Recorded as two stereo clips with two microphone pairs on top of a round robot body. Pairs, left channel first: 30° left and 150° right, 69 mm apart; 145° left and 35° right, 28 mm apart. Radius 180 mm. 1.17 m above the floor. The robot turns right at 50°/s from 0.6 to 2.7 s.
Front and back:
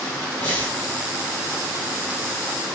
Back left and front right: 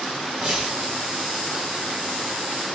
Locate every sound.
0.4 s breathing: 30° left, 1.0 m; by 0.8 s 40° left, 1.0 m